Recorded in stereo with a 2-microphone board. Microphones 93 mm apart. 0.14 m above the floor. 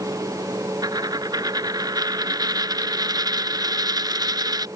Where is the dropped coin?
50° right (ahead or behind).